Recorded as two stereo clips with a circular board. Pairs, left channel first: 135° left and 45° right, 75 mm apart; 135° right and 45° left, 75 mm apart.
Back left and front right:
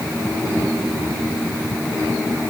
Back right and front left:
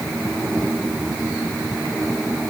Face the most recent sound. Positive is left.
No sound to turn to.